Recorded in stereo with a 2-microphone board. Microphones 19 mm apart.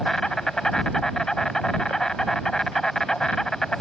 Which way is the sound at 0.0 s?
35° left (ahead or behind).